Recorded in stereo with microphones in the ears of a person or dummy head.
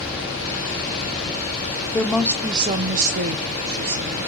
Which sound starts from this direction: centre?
A woman speaking, at 1.9 s.